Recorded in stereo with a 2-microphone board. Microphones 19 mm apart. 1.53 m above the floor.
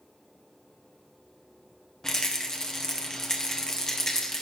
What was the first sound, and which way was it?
A rattle, 30° left (ahead or behind).